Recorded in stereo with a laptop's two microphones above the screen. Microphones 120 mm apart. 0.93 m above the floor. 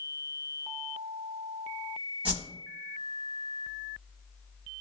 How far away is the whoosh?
About 1.7 m.